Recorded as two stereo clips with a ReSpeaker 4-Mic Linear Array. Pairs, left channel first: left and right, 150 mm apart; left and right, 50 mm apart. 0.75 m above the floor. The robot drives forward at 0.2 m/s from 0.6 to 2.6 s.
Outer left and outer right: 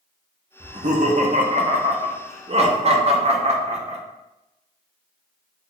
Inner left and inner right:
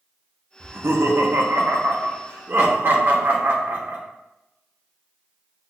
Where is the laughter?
50° right (ahead or behind), 0.6 m; by 4.0 s 45° right (ahead or behind), 0.7 m.